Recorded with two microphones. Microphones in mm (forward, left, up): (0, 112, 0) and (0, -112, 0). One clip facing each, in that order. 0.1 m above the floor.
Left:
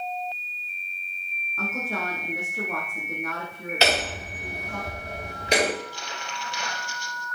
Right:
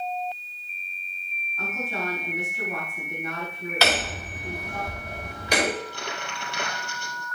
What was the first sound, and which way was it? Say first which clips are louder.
A woman speaking: left 1 dB; 75° left (ahead or behind).